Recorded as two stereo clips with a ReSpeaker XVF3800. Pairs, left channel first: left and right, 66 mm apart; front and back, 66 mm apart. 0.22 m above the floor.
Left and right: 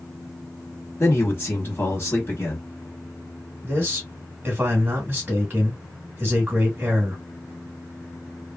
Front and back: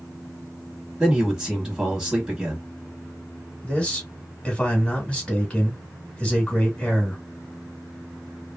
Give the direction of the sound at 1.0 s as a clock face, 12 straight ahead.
9 o'clock.